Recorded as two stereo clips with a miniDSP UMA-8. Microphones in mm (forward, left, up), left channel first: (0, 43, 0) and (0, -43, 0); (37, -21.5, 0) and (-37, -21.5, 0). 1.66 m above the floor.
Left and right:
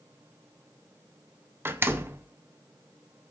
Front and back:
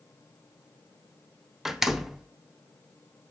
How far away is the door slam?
About 0.5 m.